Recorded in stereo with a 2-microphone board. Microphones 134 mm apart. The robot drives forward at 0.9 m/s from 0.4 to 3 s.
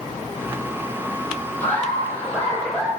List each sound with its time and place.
1.6 s laughter: 10° left (ahead or behind), 4 m